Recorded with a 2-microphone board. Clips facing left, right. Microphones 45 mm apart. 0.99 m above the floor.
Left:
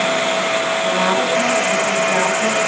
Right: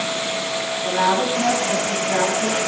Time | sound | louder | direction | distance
0.8 | a woman speaking | right 2 dB | 25° left (ahead or behind) | 9.5 m